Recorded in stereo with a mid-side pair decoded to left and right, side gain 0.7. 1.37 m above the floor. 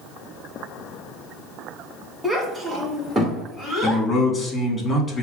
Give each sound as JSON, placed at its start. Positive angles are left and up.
{"t": 2.2, "sound": "a child speaking", "azimuth_deg": -5, "distance_m": 1.4}
{"t": 3.8, "sound": "a man speaking", "azimuth_deg": 20, "distance_m": 1.7}